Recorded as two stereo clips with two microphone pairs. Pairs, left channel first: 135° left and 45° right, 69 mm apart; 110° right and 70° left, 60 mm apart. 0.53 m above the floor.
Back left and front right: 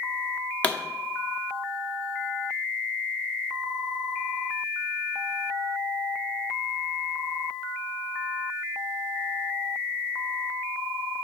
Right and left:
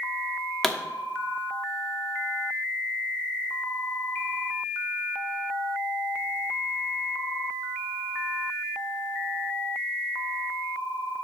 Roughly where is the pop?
Behind.